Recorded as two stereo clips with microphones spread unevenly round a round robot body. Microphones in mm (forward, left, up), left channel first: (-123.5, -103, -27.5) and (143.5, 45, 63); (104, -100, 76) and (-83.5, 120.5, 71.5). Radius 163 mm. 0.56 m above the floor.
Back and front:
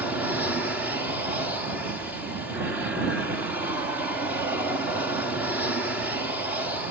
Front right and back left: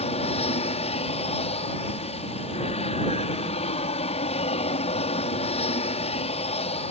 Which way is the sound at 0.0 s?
90° right.